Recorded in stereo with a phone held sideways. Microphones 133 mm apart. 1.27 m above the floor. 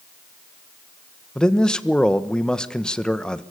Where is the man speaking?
5° left (ahead or behind), 1.3 m.